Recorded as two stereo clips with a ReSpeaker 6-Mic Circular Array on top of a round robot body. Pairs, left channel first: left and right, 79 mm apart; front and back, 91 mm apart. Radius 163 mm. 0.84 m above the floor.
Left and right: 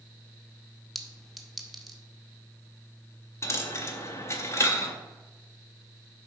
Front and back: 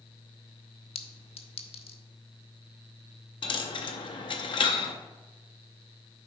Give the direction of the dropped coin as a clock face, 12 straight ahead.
11 o'clock.